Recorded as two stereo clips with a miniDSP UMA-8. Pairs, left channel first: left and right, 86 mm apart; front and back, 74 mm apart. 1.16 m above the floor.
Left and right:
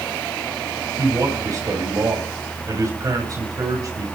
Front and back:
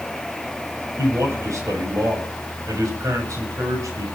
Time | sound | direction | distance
1.0 | a man speaking | 135° right | 8 m